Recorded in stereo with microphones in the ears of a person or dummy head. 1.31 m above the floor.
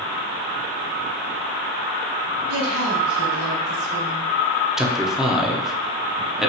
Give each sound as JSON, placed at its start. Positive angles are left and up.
{"t": 2.5, "sound": "a woman speaking", "side_deg": -85, "distance_m": 2.0}
{"t": 4.8, "sound": "a man speaking", "side_deg": 0, "distance_m": 0.7}